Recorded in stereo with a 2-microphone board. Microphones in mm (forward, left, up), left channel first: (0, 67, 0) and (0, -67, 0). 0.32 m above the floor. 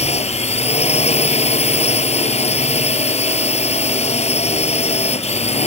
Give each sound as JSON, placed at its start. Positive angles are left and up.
{"t": 0.0, "sound": "a drone", "side_deg": 55}